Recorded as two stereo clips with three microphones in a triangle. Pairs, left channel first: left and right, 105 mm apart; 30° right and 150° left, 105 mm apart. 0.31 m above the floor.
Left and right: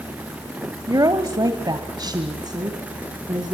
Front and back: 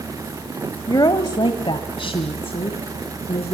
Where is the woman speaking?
60° right, 1.2 m; by 3.5 s 45° right, 3 m.